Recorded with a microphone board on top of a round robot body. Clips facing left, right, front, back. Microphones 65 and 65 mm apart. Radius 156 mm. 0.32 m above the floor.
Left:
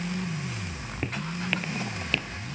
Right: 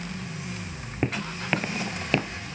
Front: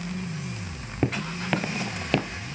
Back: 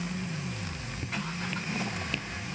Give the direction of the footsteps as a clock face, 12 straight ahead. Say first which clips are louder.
Right 4 dB, front 8 dB; 1 o'clock.